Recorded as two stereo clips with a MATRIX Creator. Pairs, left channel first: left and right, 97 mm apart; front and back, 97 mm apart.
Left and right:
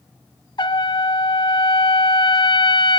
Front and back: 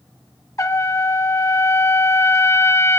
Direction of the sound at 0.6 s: 55° left.